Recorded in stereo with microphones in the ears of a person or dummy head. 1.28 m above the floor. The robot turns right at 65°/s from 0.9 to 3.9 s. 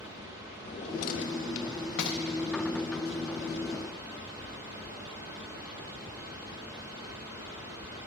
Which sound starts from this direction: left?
A drawer, at 0.7 s.